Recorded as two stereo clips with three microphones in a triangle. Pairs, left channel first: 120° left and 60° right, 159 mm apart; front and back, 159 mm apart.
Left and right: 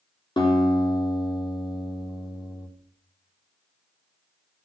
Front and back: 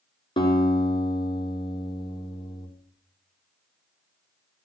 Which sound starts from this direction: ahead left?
A guitar, at 0.4 s.